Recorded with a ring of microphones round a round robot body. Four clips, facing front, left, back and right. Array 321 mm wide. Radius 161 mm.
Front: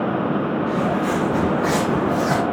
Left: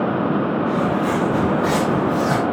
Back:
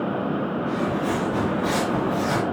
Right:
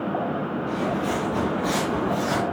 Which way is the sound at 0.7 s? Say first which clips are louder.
Left 6 dB, front 3 dB; 70° left.